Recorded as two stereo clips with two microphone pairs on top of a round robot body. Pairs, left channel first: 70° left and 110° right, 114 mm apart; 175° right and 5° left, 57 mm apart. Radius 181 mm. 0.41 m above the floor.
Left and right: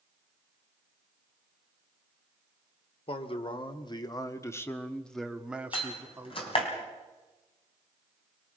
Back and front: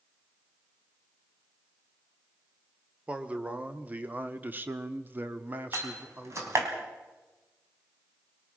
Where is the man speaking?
65° left, 2 m; by 6.7 s 50° right, 2 m.